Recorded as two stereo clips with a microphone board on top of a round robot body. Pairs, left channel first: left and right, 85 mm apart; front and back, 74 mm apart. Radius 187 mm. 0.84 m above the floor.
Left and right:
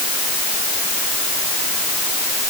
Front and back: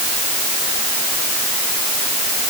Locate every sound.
Only background noise.